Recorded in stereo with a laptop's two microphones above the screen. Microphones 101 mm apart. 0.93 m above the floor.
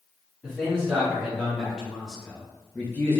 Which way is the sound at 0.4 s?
5° right (ahead or behind).